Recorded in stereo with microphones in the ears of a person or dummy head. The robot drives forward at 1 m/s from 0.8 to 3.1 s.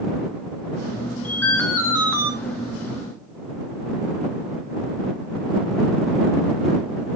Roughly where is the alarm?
Centre.